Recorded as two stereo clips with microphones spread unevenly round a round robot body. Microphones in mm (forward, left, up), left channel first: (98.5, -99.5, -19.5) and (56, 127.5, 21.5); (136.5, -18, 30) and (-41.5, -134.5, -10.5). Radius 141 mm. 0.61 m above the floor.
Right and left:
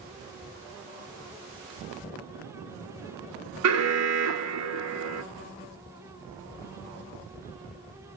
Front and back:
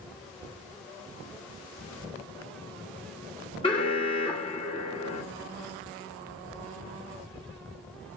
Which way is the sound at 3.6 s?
110° left.